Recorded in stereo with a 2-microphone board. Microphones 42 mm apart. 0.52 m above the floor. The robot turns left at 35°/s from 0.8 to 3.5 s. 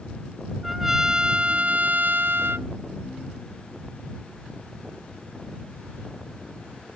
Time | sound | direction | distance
0.6 | a trumpet | 10° right | ?